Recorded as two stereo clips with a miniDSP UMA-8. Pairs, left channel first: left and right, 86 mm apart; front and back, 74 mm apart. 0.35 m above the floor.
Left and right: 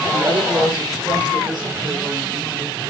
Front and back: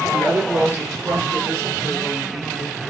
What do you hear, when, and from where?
0.1 s a woman speaking: 120° right, 5 m; by 2.8 s 135° right, 6.5 m